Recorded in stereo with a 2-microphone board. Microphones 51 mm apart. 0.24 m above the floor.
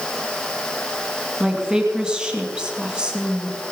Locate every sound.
1.4 s a woman speaking: 20° right (ahead or behind), 2 m